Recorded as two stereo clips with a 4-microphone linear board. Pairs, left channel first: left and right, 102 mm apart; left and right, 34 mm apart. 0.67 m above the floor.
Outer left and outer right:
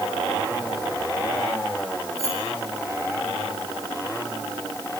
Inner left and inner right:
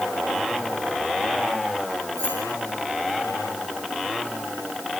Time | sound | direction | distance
2.2 | keys jangling | 75° left (ahead or behind) | 8.5 m